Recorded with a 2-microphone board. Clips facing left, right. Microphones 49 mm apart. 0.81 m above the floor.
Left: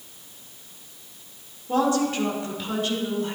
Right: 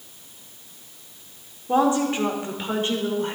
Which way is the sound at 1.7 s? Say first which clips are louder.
Right 2 dB; 25° right (ahead or behind).